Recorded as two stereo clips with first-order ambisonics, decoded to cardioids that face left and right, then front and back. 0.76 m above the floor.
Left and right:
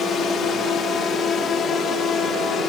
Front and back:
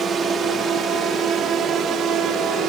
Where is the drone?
130° left; by 2.7 s 140° left.